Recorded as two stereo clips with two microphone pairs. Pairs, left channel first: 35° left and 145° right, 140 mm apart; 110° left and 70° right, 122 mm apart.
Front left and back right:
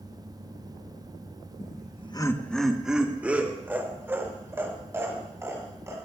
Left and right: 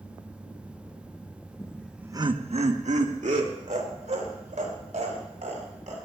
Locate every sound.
1.6 s laughter: 55° left, 0.9 m; by 6.0 s 75° right, 6 m